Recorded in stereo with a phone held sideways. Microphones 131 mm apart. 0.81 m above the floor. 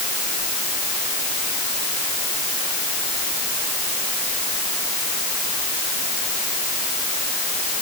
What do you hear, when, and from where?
Only background noise.